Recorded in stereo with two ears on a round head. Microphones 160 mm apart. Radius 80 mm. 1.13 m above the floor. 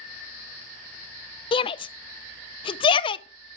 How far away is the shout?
About 0.5 m.